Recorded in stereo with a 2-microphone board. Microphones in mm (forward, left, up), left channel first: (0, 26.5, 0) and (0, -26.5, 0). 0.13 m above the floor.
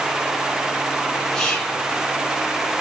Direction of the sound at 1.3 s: 5° left (ahead or behind).